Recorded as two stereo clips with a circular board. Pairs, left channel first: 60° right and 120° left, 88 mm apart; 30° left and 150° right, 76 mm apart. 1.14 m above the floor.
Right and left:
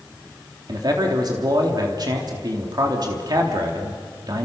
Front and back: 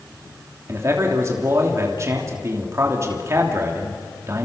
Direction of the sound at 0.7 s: 160° left.